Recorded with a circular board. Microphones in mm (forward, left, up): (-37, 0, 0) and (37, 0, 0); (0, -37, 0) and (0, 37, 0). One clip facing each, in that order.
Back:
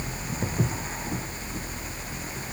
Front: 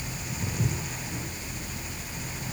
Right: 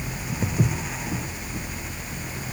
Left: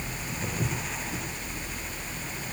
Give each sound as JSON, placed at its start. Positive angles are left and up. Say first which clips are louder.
{"t": 0.4, "sound": "footsteps", "louder": "back 3 dB, right 7 dB", "azimuth_deg": -135, "distance_m": 6.5}